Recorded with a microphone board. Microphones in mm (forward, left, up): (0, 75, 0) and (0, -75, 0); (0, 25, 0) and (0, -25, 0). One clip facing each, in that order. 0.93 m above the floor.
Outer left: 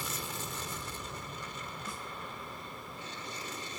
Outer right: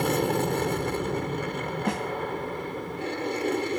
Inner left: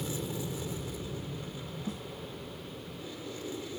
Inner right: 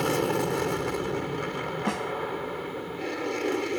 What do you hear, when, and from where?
0.0 s an aircraft: 65° right (ahead or behind)
1.9 s a snare drum: 80° right